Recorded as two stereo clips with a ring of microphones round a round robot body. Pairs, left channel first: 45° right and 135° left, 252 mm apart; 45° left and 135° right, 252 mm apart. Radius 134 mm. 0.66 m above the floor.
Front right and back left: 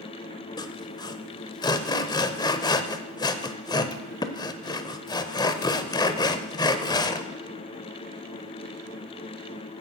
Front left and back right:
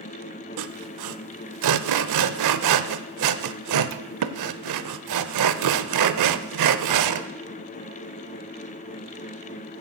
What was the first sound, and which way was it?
Sawing, 120° right.